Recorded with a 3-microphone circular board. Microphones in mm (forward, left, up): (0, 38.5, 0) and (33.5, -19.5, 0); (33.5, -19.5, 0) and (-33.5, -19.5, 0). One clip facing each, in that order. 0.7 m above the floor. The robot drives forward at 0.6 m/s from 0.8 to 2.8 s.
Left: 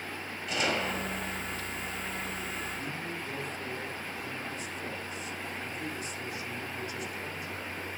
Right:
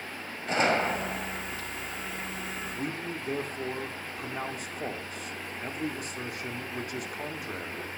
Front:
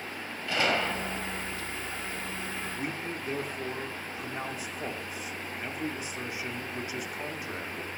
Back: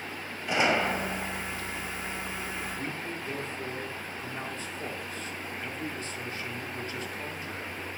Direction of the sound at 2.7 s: 75° right.